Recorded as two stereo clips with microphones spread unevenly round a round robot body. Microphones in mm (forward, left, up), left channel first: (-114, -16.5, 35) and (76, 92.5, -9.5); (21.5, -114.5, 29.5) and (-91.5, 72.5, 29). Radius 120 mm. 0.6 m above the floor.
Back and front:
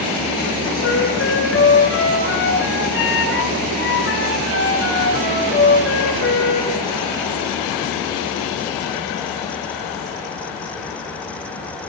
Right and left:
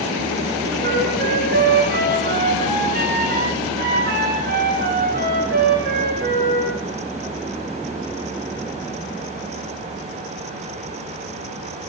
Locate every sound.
0.8 s a flute: 175° left, 9.5 m